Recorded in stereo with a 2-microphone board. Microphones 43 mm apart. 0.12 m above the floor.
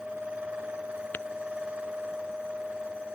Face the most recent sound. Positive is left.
turn(degrees=45)  # may be behind; listen again after turning